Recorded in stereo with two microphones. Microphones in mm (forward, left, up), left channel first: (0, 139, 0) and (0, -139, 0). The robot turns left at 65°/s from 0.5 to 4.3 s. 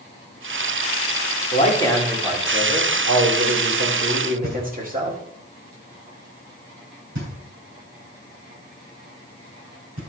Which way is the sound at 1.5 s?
40° left.